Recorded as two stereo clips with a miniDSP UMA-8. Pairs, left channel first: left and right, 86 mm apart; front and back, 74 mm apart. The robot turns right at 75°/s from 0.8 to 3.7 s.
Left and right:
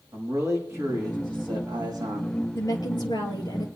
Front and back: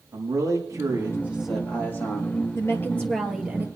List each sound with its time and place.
0.1 s a man speaking: 145° right, 5.5 m; by 2.5 s 20° right, 5.5 m
2.5 s a woman speaking: 40° left, 2 m; by 3.7 s 125° left, 2 m